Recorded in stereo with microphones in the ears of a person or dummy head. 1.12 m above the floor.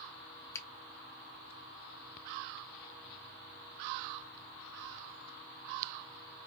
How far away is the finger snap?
About 0.8 m.